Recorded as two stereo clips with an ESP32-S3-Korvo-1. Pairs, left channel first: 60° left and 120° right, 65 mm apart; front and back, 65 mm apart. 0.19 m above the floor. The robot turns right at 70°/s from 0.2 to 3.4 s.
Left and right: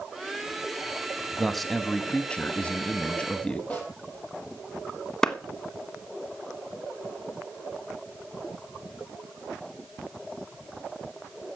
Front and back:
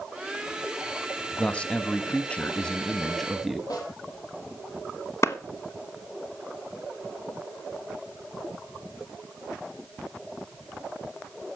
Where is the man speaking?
40° right, 1.0 m; by 3.6 s 100° left, 1.0 m.